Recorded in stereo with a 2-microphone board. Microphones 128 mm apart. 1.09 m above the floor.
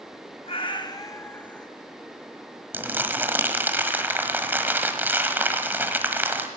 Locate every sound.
0.5 s a cat meowing: 45° left (ahead or behind), 0.9 m; by 1.7 s 5° left (ahead or behind), 1.0 m
2.7 s crumpling: 15° right (ahead or behind), 1.2 m